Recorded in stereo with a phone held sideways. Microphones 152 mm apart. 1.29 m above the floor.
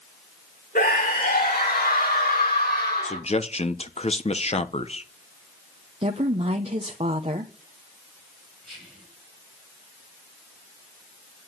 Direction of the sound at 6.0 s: 40° right (ahead or behind).